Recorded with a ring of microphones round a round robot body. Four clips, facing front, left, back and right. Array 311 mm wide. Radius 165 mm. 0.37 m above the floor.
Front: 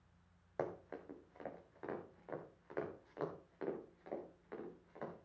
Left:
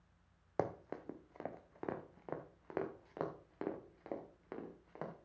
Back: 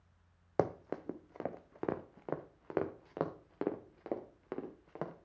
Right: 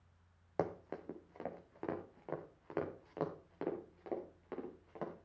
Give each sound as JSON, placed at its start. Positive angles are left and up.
{"t": 0.6, "sound": "running footsteps", "azimuth_deg": 180, "distance_m": 1.3}